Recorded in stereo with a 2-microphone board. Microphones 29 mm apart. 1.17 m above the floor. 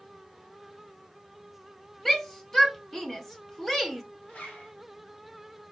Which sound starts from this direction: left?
A zipper, at 4.3 s.